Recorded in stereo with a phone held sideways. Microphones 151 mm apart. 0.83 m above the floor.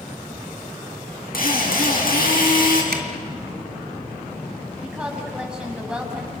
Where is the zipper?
80° right, 2.5 m.